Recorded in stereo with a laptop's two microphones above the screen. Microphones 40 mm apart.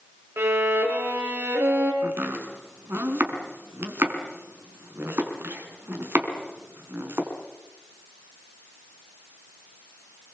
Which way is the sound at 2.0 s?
65° right (ahead or behind).